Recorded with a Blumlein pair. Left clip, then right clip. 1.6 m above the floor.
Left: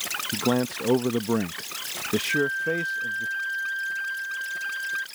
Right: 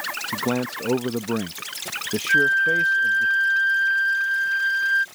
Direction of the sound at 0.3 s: Straight ahead.